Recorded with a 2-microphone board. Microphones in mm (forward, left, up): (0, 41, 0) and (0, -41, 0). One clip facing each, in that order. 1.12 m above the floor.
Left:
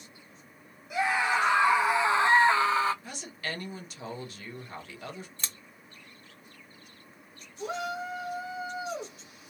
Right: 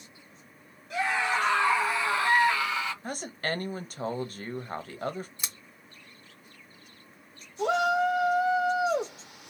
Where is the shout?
85° right, 0.7 m.